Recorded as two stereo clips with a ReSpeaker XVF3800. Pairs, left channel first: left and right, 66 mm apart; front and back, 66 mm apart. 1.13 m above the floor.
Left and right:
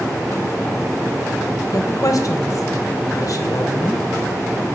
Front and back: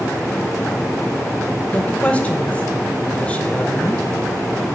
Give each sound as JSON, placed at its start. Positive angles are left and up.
{"t": 1.7, "sound": "a woman speaking", "azimuth_deg": 70, "distance_m": 1.1}